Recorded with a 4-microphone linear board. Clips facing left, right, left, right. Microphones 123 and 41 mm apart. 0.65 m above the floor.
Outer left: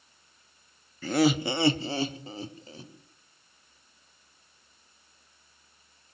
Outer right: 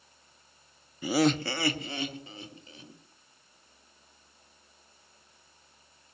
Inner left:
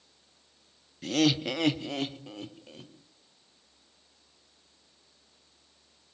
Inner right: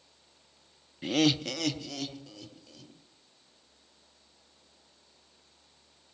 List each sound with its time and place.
1.0 s laughter: 15° right (ahead or behind), 0.5 m; by 2.9 s 35° left (ahead or behind), 2 m